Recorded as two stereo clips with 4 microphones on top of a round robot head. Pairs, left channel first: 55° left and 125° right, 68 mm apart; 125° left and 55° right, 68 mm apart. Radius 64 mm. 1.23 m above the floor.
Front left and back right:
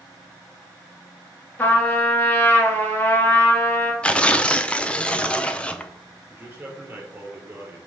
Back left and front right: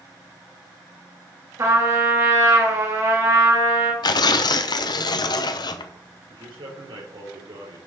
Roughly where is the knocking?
No knocking in this recording.